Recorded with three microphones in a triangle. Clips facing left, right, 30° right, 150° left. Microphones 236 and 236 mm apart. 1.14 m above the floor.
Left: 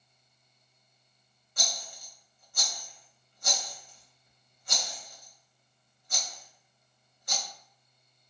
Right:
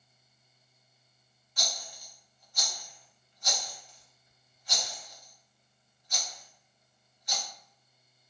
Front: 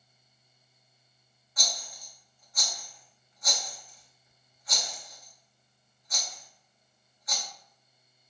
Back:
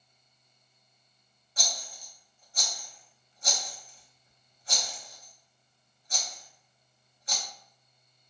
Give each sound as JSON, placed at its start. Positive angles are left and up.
{"t": 1.6, "sound": "a rattle", "azimuth_deg": 100, "distance_m": 0.7}